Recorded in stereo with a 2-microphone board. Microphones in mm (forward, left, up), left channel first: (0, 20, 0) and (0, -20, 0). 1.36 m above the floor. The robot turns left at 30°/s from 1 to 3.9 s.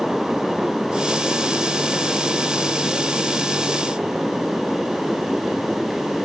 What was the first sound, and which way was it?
Only background noise.